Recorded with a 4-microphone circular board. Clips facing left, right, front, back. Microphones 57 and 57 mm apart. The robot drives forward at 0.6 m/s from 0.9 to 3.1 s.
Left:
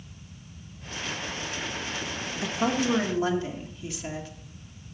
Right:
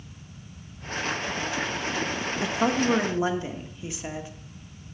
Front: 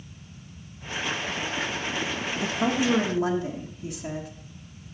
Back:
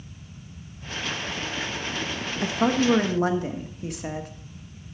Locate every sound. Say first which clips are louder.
2.4 s a woman speaking: right 2 dB, back 3 dB; 150° right, 1.1 m; by 4.3 s 160° right, 1.4 m